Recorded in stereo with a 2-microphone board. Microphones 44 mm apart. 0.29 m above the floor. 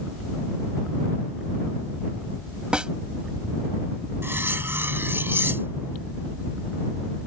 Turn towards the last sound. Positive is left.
turn(degrees=-65)  # may be behind; listen again after turning